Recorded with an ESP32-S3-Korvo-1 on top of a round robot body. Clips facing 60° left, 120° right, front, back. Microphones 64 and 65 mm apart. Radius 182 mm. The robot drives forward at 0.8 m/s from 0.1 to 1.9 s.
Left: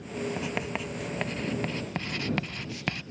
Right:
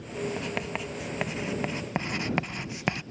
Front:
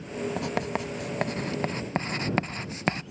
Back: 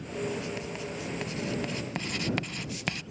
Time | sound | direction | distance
0.4 | writing | 30° right | ?